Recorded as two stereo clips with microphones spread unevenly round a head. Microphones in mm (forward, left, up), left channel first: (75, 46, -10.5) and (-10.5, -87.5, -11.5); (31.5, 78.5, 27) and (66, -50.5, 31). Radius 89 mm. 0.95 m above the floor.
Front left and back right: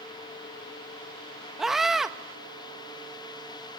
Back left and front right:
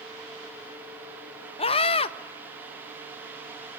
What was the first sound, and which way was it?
A scream, 150° left.